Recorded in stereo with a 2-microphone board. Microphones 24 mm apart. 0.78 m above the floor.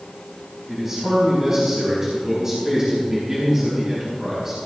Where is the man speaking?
20° right (ahead or behind), 5 m.